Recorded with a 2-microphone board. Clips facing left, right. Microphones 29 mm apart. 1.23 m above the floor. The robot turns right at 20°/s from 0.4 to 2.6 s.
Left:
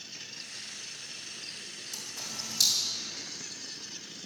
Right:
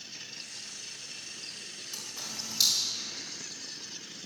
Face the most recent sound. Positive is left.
turn(degrees=-15)  # may be behind; listen again after turning